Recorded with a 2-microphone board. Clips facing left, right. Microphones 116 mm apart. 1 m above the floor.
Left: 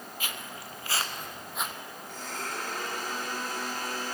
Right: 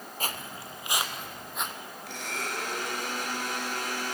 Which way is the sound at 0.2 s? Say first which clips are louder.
Right 5 dB; 40° right (ahead or behind).